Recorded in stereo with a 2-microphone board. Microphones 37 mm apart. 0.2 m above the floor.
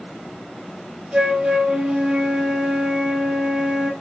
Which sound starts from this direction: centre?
A flute, at 1.1 s.